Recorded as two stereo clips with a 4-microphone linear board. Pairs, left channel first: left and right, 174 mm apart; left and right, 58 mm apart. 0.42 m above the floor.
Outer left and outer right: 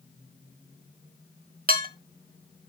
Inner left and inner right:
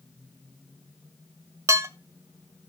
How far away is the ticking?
I don't hear ticking.